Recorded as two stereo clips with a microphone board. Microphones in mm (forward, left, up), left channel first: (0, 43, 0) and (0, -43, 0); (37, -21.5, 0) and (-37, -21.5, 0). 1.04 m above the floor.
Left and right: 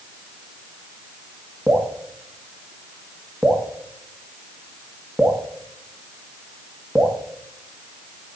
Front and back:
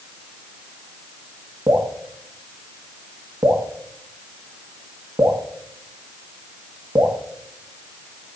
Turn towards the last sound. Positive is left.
turn(degrees=-175)